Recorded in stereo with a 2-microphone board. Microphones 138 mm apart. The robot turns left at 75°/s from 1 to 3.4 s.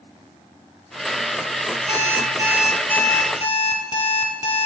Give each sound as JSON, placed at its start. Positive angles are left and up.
{"t": 1.9, "sound": "an alarm clock", "azimuth_deg": -115, "distance_m": 1.8}